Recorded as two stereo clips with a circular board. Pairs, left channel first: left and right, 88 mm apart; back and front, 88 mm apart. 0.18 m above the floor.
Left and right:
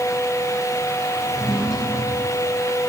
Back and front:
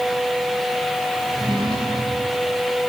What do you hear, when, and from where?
1.3 s a drawer: 30° left, 6.5 m